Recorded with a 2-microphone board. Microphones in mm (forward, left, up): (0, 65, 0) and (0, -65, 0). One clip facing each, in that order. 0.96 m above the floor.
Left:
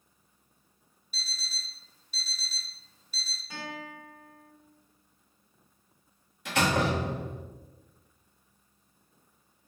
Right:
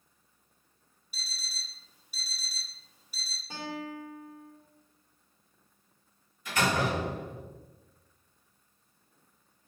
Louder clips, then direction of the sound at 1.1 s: Left 2 dB; 10° right (ahead or behind).